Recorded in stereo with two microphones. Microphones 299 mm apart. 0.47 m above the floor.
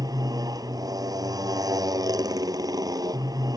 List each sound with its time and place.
0.0 s a motorcycle: 10° right (ahead or behind)